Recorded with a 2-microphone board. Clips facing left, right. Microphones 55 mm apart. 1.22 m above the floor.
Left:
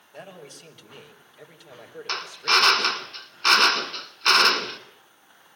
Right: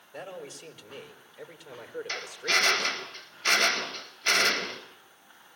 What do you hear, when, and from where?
0.1 s a man speaking: 10° right (ahead or behind), 6 m; by 3.1 s 20° right (ahead or behind), 3 m
2.1 s a drill: 70° left (ahead or behind), 3.5 m